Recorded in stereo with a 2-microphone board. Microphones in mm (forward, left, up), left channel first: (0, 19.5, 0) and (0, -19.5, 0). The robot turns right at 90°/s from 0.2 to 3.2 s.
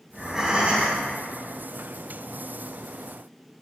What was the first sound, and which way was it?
Breathing, 175° left.